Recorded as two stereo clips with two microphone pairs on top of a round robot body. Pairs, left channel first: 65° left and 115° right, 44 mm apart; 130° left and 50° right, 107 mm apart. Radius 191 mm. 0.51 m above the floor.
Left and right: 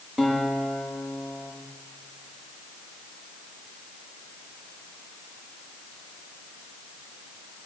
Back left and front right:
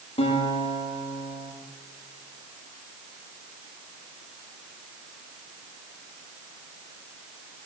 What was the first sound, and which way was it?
A guitar, 170° left.